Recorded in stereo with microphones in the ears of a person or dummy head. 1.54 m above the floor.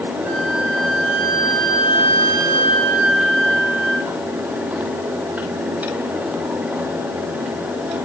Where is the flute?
80° right, 6.5 m.